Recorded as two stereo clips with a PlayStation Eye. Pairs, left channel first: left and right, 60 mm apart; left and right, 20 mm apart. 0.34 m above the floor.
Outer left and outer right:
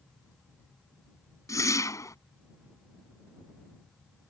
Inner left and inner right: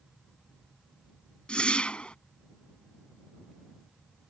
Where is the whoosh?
60° left (ahead or behind).